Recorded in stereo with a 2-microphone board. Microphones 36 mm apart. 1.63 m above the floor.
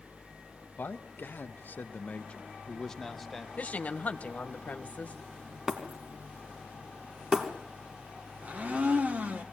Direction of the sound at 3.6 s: 45° left (ahead or behind).